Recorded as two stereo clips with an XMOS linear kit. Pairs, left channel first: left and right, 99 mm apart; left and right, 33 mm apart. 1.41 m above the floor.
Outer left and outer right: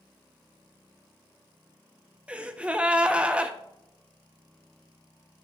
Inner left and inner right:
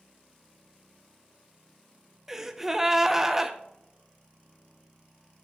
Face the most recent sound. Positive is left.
turn(degrees=-10)  # may be behind; listen again after turning